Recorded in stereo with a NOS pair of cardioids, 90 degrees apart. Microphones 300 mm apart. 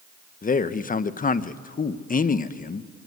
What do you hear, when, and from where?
0.4 s a man speaking: 30° left, 1.2 m